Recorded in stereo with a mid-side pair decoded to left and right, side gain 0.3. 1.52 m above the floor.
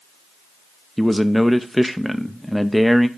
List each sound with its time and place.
1.0 s a man speaking: straight ahead, 0.6 m